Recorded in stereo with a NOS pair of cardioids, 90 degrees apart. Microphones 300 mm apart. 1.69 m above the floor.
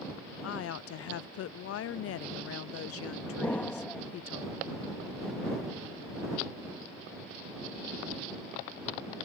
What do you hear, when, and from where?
0.4 s a woman speaking: 55° left
3.4 s an explosion: 5° left